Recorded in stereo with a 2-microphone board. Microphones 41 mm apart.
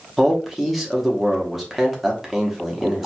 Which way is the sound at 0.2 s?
5° right (ahead or behind).